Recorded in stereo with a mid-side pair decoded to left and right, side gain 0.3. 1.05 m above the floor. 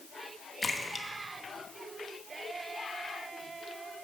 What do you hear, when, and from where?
0.6 s a splash: 30° left, 1.2 m